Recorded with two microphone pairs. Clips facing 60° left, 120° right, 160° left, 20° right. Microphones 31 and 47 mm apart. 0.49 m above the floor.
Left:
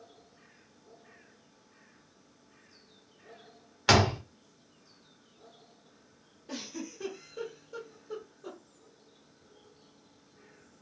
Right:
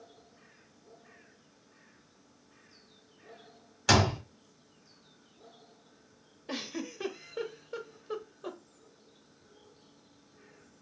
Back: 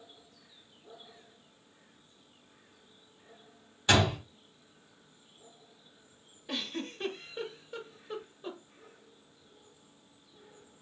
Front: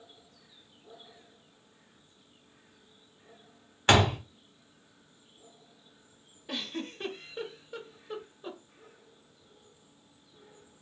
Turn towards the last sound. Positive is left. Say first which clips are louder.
# right 3 dB, even
turn(degrees=-100)